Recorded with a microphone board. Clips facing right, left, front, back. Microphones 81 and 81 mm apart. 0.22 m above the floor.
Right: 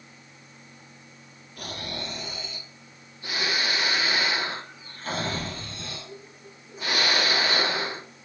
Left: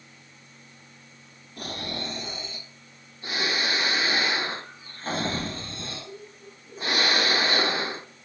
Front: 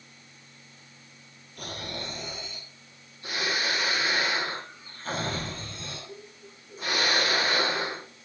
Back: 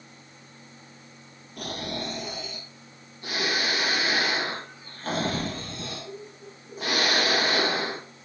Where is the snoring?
150° left, 3 m.